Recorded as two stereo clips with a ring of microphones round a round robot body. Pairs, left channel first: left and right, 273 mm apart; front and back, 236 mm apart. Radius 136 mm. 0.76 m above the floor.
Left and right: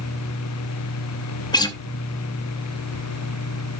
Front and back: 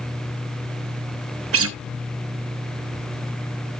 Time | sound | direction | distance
1.5 | a guitar | 165° left | 0.8 m